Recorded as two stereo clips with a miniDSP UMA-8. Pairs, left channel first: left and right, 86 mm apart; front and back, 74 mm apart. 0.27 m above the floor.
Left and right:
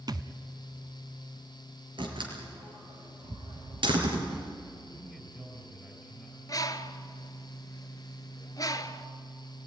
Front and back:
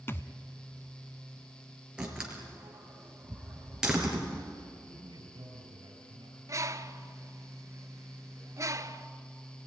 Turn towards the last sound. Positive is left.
turn(degrees=135)